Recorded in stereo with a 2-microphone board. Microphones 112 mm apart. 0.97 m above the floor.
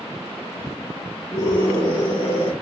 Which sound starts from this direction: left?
A scream, at 1.3 s.